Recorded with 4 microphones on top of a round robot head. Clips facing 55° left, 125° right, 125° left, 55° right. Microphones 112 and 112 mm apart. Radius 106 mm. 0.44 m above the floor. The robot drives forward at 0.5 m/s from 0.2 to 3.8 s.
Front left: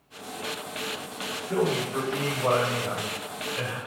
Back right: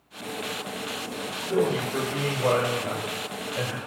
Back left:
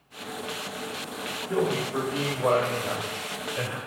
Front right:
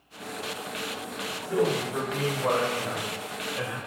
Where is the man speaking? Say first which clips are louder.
Back right 2 dB, even; 170° right, 1.8 m; by 3.8 s 175° right, 2.5 m.